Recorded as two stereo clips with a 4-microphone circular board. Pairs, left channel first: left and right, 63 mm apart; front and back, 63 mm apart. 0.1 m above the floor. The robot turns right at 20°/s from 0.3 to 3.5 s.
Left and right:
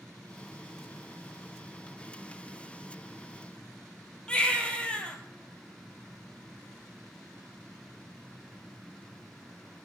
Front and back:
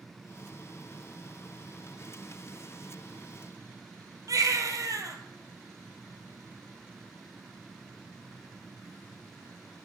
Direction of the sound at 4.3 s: 160° left.